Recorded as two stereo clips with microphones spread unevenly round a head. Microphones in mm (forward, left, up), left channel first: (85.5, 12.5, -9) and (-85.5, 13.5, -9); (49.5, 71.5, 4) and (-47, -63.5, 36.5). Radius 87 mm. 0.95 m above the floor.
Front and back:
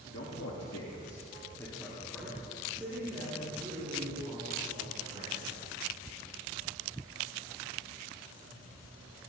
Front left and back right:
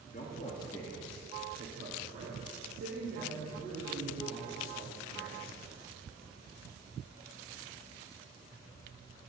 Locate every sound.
0.1 s a man speaking: 15° left, 1.5 m; by 5.6 s 110° right, 6.5 m